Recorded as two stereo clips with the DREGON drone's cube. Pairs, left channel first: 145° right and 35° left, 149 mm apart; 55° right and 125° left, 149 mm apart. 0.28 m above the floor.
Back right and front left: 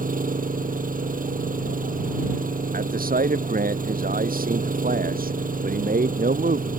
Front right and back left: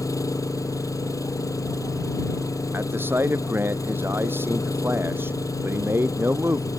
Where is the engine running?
15° left.